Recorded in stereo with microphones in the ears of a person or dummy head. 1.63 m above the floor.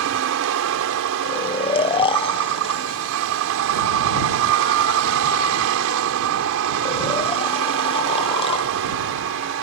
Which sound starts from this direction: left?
Snoring, at 1.2 s.